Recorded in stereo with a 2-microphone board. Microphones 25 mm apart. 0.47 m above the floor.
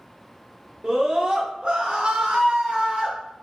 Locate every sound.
0.8 s a scream: 30° right (ahead or behind), 1.1 m; by 3.2 s 40° right (ahead or behind), 1.4 m